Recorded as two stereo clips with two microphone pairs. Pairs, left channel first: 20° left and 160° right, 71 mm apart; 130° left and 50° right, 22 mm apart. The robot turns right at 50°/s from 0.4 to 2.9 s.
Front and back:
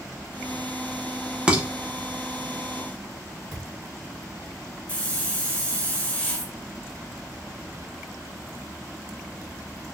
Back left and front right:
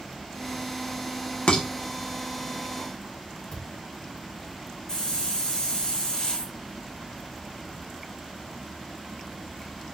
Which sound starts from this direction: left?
A hiss, at 4.9 s.